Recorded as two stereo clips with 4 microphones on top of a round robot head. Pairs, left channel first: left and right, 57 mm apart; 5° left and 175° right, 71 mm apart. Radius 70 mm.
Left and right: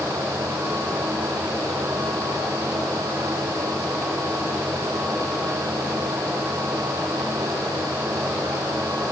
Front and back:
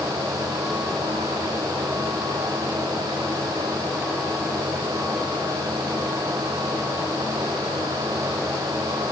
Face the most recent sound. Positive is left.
No sound to turn to.